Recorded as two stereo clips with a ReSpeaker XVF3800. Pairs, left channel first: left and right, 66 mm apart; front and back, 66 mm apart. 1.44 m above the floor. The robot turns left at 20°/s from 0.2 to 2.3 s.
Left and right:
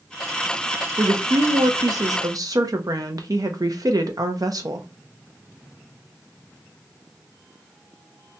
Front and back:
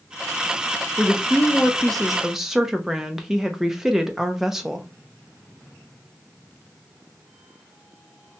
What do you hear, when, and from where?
1.0 s a woman speaking: 70° right, 0.6 m; by 4.9 s 95° right, 0.6 m